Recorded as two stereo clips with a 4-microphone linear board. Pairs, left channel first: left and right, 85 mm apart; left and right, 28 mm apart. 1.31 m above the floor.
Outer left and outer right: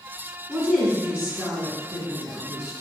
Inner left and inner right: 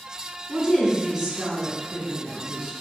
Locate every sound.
0.5 s a woman speaking: 25° right (ahead or behind), 1.2 m